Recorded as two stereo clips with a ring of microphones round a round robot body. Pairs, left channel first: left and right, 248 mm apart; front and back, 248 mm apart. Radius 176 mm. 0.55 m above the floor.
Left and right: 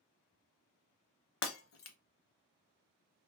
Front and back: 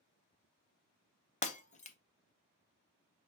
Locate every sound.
1.4 s breaking glass: 65° left, 0.6 m